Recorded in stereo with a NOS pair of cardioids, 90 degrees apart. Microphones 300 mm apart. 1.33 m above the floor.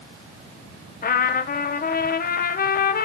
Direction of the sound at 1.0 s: 30° left.